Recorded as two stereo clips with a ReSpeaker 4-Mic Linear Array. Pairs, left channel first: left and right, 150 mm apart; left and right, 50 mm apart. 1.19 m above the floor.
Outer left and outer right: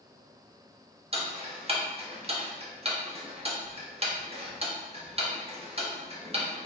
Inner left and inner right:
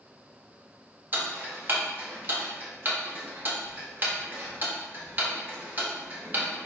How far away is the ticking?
About 0.9 m.